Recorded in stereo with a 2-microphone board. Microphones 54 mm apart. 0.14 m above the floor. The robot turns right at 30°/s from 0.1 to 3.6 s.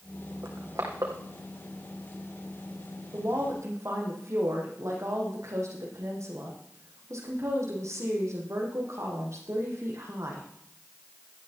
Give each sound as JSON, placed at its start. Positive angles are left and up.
{"t": 0.4, "sound": "crushing", "side_deg": -70, "distance_m": 3.5}
{"t": 3.1, "sound": "a woman speaking", "side_deg": -55, "distance_m": 5.5}